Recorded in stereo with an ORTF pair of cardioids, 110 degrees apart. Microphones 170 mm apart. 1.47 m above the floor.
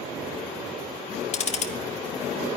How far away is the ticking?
About 0.9 m.